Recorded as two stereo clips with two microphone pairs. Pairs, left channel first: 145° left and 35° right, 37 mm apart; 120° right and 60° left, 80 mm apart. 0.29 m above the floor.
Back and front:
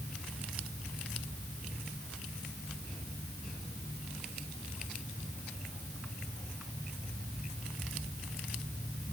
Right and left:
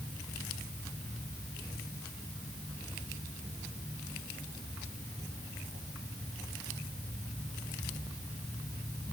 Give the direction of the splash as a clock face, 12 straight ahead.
No splash in this recording.